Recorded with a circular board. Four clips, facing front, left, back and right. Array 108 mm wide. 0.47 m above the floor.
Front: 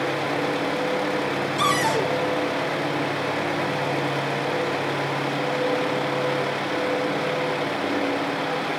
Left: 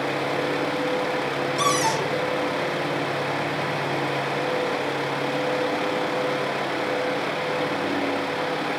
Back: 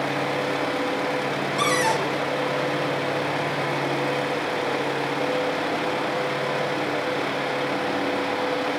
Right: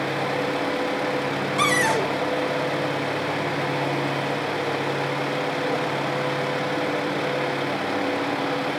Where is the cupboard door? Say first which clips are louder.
Right 2 dB, even; 95° right, 2 m.